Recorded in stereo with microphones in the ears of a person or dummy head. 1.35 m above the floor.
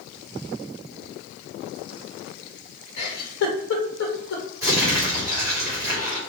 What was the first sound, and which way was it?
A giggle, 75° left (ahead or behind).